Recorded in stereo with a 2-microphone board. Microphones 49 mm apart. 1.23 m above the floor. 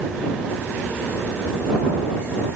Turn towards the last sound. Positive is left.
No sound to turn to.